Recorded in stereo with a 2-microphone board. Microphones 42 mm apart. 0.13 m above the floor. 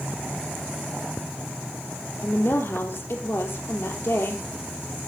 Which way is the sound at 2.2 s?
60° left (ahead or behind).